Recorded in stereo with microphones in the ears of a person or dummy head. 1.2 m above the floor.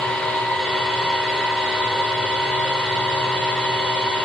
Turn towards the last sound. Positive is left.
turn(degrees=10)  # may be behind; listen again after turning